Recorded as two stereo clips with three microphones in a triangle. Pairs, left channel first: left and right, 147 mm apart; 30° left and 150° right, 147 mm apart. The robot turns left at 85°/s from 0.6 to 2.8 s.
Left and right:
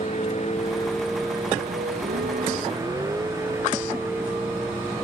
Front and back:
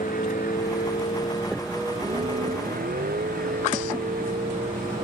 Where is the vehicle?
50° left; by 5.0 s 170° right.